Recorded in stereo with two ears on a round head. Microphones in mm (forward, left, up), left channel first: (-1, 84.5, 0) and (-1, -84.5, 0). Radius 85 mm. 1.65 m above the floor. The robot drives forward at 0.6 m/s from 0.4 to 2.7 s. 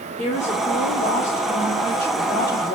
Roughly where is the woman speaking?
Left.